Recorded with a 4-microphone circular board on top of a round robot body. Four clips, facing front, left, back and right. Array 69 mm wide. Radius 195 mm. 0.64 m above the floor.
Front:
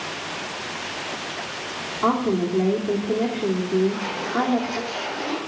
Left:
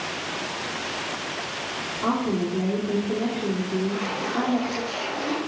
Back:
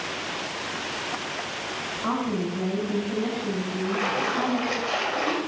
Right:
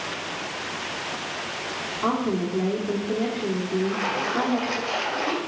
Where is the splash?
145° right, 3 m.